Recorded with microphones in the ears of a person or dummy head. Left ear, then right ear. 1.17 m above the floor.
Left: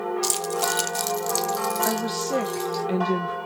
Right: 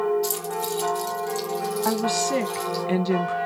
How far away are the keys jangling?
About 1.4 m.